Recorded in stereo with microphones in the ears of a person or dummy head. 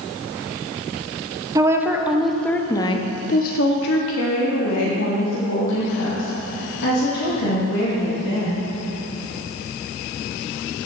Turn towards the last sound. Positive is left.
turn(degrees=75)  # may be behind; listen again after turning